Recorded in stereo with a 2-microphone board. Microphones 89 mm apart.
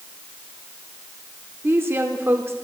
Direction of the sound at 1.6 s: 30° right (ahead or behind).